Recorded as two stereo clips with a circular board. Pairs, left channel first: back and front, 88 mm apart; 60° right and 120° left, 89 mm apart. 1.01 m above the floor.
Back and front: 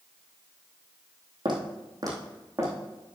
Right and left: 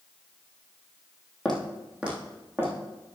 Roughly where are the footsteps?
Ahead left.